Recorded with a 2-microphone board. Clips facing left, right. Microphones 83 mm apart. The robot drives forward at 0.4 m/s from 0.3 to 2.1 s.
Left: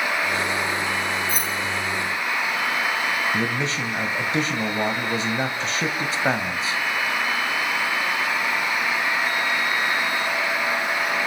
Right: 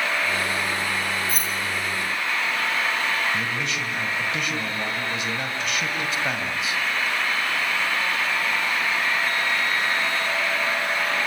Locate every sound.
1.3 s keys jangling: 45° left (ahead or behind), 7.5 m
3.3 s a man speaking: 35° left (ahead or behind), 2.0 m